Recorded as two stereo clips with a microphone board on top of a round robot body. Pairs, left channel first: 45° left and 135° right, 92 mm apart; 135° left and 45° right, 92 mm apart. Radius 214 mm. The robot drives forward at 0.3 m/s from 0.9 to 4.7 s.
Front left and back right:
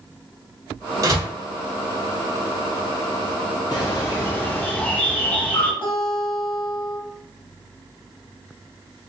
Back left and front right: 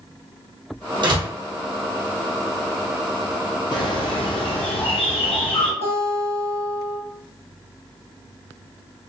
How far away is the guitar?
About 1.3 m.